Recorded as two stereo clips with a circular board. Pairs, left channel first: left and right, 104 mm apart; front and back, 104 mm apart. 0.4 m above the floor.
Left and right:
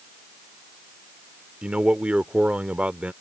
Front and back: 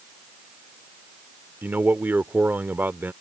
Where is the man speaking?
145° right.